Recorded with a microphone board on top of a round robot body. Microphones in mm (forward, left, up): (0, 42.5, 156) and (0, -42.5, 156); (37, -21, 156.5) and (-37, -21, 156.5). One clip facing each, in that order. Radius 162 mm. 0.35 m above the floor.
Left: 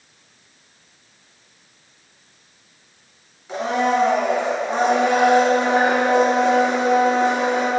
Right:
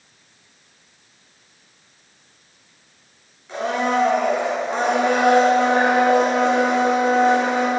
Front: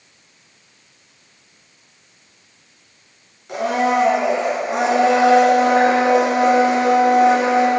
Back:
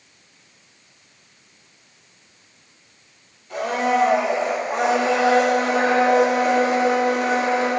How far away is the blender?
About 2.5 m.